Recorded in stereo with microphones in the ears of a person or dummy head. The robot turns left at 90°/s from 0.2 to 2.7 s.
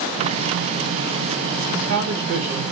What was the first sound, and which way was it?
A man speaking, 70° right.